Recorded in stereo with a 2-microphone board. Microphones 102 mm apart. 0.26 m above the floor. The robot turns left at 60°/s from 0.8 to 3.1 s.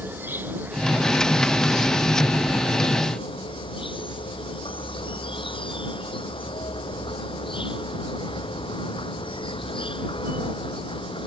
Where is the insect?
160° right; by 11.3 s 60° left.